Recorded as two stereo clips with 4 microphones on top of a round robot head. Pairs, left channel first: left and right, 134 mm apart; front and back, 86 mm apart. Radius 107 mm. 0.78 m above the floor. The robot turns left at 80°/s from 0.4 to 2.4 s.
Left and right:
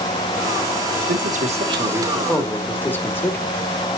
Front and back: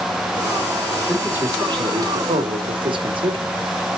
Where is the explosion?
I don't hear an explosion.